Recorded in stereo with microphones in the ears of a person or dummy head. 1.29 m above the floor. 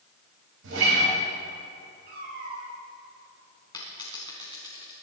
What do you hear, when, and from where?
0.6 s a guitar: 70° right (ahead or behind), 5 m
2.1 s a cat meowing: 50° right (ahead or behind), 5.5 m
3.7 s a dropped coin: 30° left (ahead or behind), 4 m